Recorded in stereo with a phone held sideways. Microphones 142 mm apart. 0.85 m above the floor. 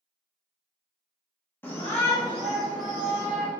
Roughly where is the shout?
Centre.